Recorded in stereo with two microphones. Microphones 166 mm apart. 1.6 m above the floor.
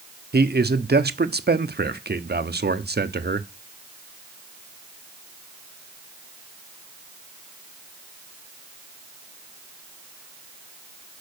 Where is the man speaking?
75° right (ahead or behind), 0.8 m.